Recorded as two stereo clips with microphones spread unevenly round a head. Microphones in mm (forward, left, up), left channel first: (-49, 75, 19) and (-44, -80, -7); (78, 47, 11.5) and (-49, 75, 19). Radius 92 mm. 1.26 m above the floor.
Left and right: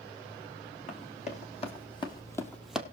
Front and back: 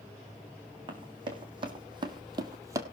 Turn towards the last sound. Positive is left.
turn(degrees=180)